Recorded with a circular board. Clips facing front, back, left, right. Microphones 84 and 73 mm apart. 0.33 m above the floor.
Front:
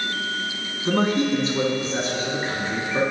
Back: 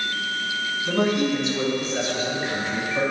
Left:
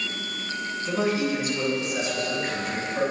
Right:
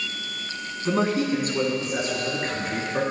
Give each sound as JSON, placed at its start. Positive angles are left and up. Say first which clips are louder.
{"t": 0.8, "sound": "a man speaking", "louder": "front 2 dB, right 3 dB", "azimuth_deg": -45, "distance_m": 3.5}